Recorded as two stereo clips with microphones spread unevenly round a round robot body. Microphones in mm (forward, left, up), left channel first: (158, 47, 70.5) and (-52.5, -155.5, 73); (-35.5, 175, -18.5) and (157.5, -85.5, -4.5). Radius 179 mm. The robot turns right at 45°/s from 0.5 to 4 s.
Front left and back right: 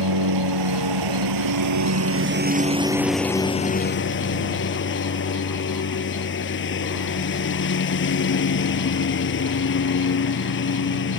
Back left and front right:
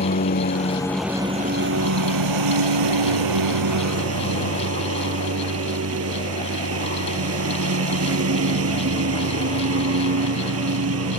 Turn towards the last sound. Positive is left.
turn(degrees=-10)